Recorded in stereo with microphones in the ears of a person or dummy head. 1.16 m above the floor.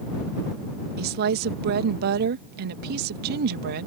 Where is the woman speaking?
60° right (ahead or behind).